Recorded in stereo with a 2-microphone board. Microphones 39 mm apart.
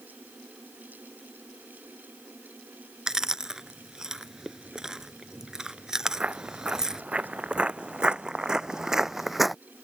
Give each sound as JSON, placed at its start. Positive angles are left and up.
{"t": 3.1, "sound": "chewing", "side_deg": -15}
{"t": 6.0, "sound": "footsteps", "side_deg": -35}